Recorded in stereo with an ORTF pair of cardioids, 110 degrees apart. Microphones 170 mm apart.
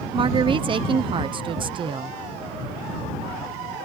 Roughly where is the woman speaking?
Ahead right.